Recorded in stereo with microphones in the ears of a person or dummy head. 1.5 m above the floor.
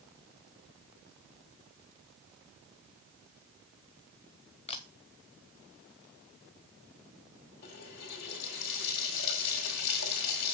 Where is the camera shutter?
35° left (ahead or behind), 0.7 m.